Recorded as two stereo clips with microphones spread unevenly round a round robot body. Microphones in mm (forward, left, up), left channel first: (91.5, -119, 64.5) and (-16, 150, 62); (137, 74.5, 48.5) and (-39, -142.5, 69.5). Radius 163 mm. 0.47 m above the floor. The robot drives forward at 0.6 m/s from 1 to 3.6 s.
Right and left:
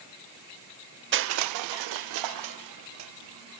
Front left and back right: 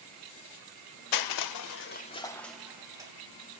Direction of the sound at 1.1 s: 60° left.